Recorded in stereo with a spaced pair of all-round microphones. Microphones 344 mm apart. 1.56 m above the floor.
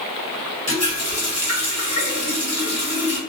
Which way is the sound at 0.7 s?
50° left (ahead or behind).